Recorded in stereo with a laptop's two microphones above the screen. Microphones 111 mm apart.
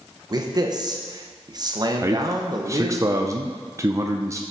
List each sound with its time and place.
0.3 s a man speaking: 40° right (ahead or behind), 1.1 m
2.0 s a man speaking: 30° right (ahead or behind), 0.6 m